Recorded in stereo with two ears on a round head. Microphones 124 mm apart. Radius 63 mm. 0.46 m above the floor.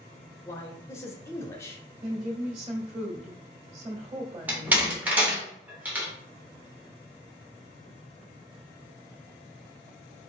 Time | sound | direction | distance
0.5 | a man speaking | 20° left (ahead or behind) | 0.7 m
2.0 | a woman speaking | 45° right (ahead or behind) | 1.5 m
4.5 | a door slam | 10° right (ahead or behind) | 1.1 m